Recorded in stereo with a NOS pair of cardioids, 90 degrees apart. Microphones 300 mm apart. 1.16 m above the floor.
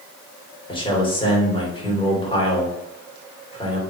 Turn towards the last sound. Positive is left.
turn(degrees=15)